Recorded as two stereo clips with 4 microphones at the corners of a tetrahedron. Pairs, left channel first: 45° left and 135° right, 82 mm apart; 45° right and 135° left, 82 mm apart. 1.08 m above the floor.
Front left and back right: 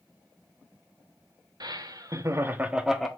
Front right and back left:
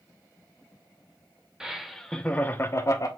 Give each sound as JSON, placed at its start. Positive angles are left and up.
{"t": 1.6, "sound": "laughter", "azimuth_deg": -145, "distance_m": 1.1}